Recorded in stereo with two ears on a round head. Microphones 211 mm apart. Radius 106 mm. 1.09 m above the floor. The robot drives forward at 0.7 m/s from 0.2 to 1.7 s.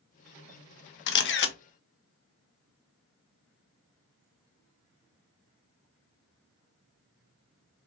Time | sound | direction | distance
1.1 | a camera shutter | 50° left (ahead or behind) | 0.6 m